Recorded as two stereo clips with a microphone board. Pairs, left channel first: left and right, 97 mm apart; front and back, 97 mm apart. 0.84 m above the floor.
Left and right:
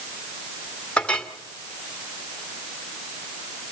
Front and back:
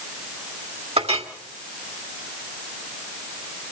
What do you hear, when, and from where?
1.0 s a clink: 170° left, 1.7 m